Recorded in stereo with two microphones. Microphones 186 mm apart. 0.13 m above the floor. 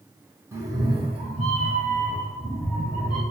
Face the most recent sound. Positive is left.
turn(degrees=-50)  # may be behind; listen again after turning